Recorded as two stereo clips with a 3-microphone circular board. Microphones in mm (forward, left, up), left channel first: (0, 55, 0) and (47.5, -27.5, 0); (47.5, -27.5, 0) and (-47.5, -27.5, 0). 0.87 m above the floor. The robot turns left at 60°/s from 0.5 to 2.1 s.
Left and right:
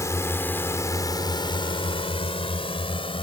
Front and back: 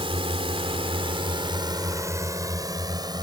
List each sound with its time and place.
0.0 s a drone: 175° left; by 3.2 s 140° left